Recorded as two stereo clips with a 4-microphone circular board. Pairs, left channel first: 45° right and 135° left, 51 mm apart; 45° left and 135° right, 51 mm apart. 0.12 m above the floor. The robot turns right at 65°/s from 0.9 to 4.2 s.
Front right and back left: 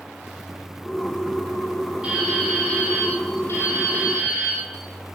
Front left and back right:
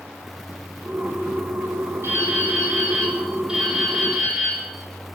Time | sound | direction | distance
2.0 | dripping | 155° right | 5 m